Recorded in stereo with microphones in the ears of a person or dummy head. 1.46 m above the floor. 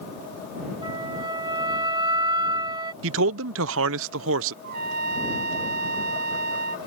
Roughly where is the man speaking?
Right.